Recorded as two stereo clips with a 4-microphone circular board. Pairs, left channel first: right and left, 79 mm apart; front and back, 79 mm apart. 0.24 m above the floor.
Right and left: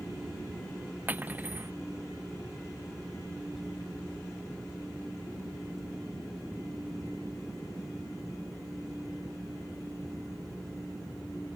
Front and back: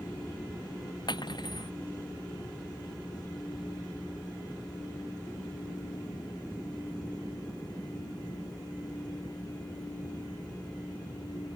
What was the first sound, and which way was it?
Cutlery clinking, 20° left.